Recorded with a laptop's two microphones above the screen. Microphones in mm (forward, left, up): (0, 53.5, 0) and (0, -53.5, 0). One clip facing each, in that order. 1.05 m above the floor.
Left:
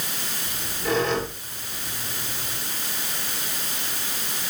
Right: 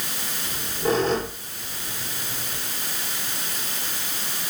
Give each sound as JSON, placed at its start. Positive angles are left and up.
{"t": 0.4, "sound": "a squeak", "side_deg": -40, "distance_m": 7.5}